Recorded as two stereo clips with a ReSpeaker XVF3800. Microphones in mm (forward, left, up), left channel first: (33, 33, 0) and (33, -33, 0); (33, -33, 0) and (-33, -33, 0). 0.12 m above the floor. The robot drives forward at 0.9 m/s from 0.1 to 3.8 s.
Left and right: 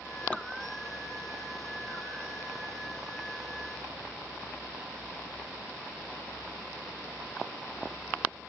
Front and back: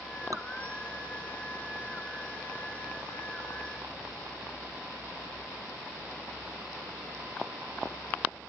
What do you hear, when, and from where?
0.3 s dripping: 160° left, 0.9 m; by 0.5 s 165° left, 1.0 m